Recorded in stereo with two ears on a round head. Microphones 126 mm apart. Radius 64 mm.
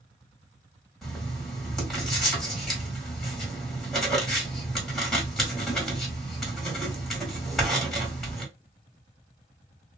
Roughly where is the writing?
Centre.